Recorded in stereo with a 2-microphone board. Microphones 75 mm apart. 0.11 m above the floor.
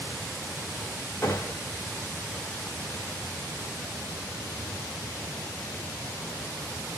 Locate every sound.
1.2 s a gunshot: 30° left (ahead or behind), 4.5 m